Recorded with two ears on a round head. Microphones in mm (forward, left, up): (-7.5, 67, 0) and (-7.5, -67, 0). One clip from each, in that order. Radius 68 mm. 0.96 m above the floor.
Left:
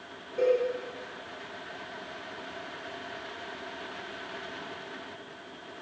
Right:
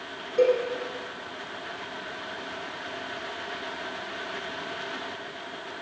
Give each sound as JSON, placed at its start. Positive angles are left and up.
{"t": 0.4, "sound": "a cowbell", "side_deg": -35, "distance_m": 2.5}